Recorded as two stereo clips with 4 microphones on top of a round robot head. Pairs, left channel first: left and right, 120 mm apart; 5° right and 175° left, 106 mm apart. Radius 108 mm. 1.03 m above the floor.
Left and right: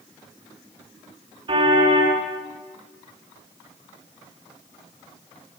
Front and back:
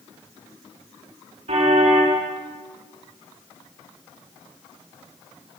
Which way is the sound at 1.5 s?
140° right.